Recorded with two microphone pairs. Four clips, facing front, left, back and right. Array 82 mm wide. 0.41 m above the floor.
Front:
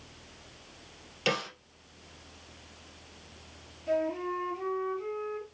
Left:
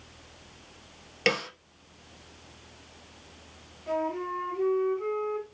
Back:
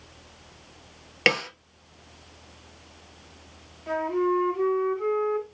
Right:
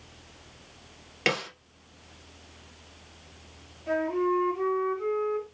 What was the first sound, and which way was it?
A snare drum, 175° right.